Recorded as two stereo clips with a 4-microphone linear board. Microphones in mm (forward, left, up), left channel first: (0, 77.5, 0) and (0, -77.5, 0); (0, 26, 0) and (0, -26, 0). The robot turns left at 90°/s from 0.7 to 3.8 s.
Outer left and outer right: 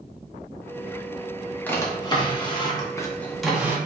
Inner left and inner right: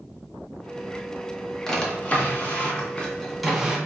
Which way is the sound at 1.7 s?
10° left (ahead or behind).